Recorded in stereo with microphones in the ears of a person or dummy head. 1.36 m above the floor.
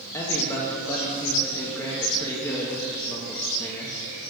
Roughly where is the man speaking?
Centre.